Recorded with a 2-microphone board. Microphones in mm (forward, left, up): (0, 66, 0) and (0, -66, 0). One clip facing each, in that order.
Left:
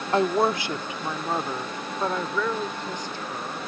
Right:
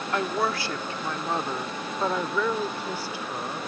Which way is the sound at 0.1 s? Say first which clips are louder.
Left 5 dB; 30° left (ahead or behind).